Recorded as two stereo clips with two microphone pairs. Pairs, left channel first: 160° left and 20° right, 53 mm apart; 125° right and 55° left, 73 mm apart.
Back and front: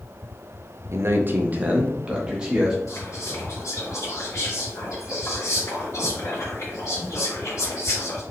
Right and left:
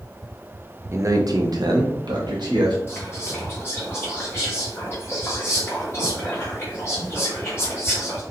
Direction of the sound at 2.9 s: Straight behind.